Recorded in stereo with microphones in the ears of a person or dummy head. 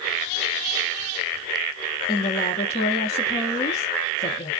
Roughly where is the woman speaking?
Left.